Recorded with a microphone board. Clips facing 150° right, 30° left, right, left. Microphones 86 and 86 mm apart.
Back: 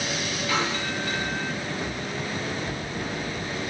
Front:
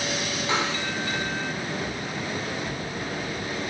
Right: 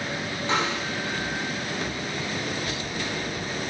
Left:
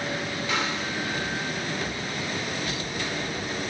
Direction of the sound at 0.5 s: 30° right.